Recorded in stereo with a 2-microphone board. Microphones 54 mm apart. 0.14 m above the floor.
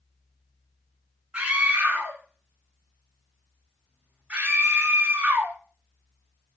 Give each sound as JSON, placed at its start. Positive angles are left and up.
{"t": 1.3, "sound": "a scream", "side_deg": -20, "distance_m": 1.2}